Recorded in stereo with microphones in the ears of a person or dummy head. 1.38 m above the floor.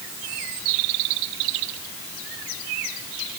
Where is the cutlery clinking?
No cutlery clinking in this recording.